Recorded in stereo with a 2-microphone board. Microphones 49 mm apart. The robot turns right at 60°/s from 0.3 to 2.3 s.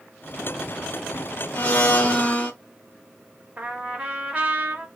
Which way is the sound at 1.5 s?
85° left.